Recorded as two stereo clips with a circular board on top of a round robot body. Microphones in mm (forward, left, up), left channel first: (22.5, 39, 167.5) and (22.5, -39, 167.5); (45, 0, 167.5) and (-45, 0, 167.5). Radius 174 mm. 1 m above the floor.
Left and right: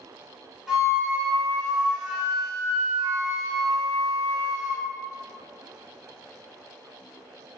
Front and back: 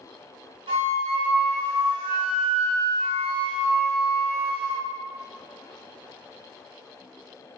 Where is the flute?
170° right, 0.6 m.